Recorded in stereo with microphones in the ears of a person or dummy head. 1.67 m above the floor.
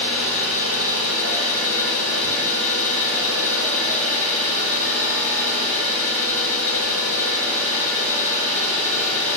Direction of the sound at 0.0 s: 45° right (ahead or behind).